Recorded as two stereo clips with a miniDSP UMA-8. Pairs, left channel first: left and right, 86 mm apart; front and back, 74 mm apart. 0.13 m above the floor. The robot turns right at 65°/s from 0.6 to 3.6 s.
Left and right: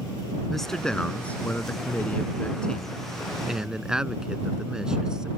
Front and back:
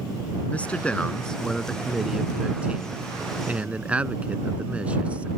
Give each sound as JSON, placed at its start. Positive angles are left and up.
{"t": 0.5, "sound": "a man speaking", "azimuth_deg": 10}